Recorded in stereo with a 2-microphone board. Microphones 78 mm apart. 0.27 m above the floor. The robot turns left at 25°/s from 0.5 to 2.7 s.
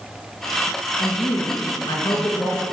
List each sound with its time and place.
1.0 s a woman speaking: 100° left, 3 m; by 2.6 s 55° left, 3 m